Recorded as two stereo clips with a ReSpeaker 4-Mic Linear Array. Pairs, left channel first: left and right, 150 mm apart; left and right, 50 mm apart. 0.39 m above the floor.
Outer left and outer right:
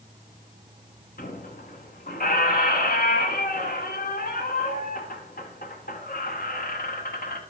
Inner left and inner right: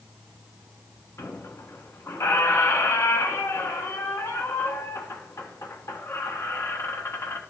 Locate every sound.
1.2 s a squeak: 80° left, 1.0 m